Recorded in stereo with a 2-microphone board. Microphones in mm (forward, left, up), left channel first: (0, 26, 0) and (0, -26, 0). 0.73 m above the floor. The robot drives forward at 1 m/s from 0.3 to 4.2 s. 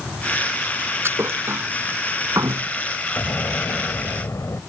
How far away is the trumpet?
I don't hear a trumpet.